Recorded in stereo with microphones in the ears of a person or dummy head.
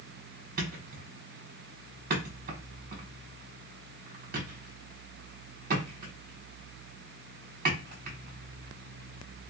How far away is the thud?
About 1.5 m.